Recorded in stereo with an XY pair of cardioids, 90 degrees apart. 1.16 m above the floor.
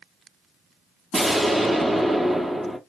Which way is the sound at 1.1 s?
15° right.